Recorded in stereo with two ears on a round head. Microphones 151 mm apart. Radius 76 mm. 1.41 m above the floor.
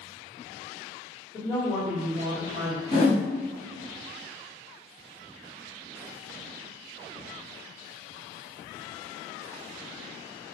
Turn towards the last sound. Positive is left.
turn(degrees=45)  # may be behind; listen again after turning